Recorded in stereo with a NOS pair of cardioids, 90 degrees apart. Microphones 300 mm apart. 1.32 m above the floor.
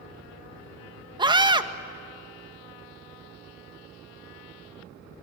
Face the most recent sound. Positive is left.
turn(degrees=-15)